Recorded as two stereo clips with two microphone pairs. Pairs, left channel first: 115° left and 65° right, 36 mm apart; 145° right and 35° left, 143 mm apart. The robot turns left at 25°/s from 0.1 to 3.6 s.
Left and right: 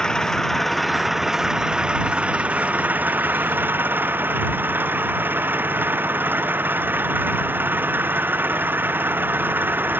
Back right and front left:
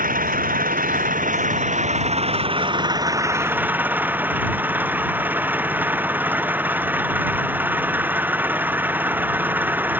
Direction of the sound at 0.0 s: 45° left.